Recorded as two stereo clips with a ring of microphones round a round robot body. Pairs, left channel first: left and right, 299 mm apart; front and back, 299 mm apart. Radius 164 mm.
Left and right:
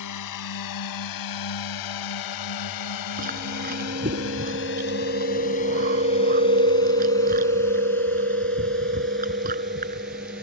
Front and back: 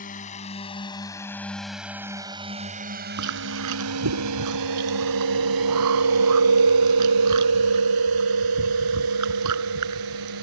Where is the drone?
65° left; by 10.4 s 175° right.